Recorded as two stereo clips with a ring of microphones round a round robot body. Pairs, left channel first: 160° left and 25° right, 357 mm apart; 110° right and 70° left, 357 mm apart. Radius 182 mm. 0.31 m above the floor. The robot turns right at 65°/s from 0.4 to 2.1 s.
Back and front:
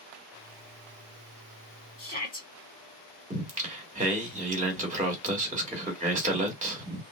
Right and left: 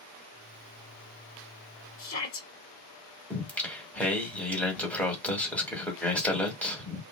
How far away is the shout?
About 1.9 m.